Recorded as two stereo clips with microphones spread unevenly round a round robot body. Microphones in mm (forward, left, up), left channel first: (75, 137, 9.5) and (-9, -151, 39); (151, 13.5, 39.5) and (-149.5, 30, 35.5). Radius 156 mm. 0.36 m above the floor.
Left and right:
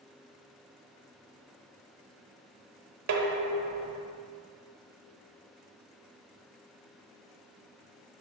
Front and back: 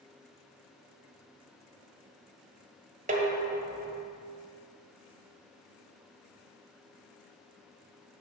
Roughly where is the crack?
No crack in this recording.